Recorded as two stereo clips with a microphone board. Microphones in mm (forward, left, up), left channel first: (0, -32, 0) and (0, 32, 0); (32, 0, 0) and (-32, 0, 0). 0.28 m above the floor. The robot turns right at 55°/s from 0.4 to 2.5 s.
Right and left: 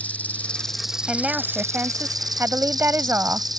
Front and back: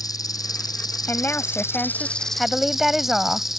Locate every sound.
0.0 s an insect: 20° right; by 3.6 s 95° left
1.1 s a woman speaking: 15° left; by 3.5 s 95° left